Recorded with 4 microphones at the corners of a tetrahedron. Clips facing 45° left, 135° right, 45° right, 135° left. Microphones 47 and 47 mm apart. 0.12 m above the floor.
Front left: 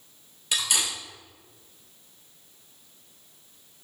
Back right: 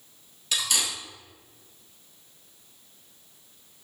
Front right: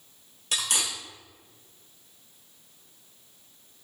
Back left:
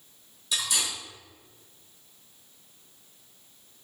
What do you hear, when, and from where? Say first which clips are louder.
0.5 s cutlery clinking: even, even; 35° right, 1.4 m